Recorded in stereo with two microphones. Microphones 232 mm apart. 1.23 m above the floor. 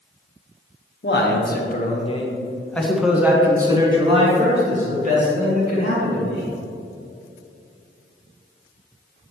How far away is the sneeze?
I don't hear a sneeze.